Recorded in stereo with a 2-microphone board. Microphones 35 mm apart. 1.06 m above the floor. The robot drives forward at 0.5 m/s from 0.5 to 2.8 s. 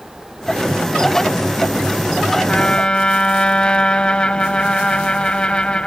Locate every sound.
2.5 s a trumpet: 25° left (ahead or behind)